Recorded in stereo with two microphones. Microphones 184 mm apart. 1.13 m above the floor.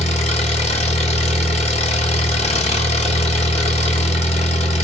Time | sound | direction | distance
0.0 | an engine running | 40° left (ahead or behind) | 1.2 m